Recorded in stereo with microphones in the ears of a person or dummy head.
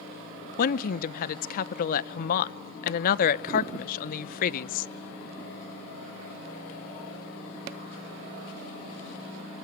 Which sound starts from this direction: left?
A woman speaking, at 0.6 s.